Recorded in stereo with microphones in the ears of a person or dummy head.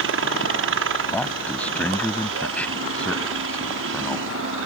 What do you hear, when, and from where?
0.0 s a helicopter: 65° right (ahead or behind)
1.1 s a man speaking: 10° left (ahead or behind)